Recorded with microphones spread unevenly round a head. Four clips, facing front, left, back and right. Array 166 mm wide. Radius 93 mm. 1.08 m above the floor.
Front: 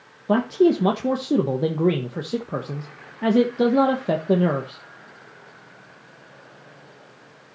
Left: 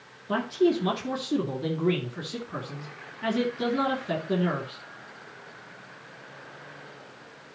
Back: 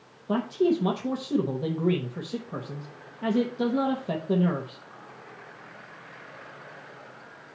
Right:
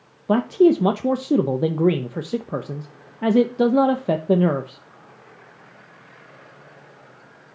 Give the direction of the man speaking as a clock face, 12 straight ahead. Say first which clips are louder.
Right 8 dB, front 6 dB; 2 o'clock.